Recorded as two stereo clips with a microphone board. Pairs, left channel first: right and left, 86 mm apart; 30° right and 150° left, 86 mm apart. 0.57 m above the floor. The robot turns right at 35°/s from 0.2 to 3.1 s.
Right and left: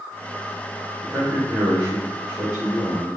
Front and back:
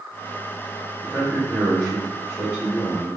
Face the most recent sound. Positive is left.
turn(degrees=115)